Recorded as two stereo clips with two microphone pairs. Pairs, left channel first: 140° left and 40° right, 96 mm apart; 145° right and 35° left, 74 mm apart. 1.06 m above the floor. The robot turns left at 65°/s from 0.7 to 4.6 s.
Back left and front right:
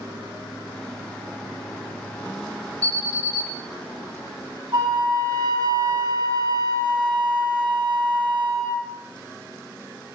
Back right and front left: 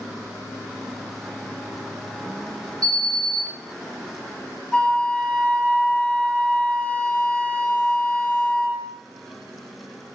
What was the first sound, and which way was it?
An alarm, 65° left.